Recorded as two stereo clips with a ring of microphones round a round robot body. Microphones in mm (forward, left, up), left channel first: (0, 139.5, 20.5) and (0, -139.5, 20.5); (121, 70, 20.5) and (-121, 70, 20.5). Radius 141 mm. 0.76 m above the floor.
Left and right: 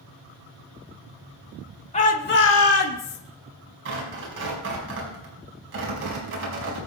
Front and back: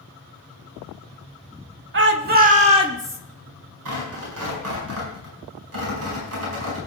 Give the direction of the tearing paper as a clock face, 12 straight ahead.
5 o'clock.